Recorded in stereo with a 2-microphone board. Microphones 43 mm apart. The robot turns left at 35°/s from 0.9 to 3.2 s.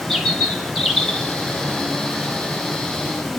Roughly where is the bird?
Centre.